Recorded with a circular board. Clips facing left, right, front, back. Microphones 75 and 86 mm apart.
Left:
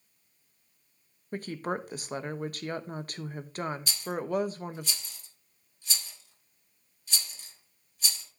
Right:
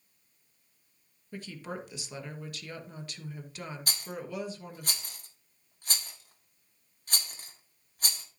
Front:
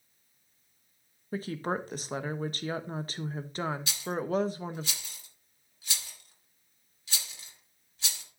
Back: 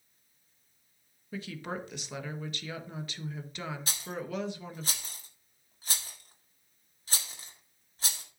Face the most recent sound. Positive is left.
turn(degrees=-130)